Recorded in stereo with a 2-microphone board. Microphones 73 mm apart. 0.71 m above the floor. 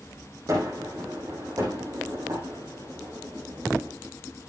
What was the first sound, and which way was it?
A gunshot, 50° right (ahead or behind).